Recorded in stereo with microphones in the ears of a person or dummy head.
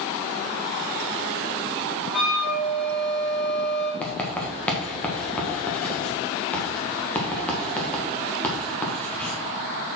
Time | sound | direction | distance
2.1 | a flute | centre (ahead or behind) | 2.5 m
4.0 | writing | 10° left (ahead or behind) | 1.5 m